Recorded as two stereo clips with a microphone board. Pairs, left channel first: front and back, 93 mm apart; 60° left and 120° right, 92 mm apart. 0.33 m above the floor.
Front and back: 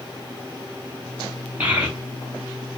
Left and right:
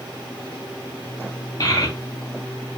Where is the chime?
I don't hear a chime.